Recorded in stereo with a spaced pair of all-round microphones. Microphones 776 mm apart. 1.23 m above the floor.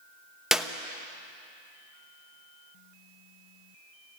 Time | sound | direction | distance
0.5 | a clap | centre (ahead or behind) | 0.8 m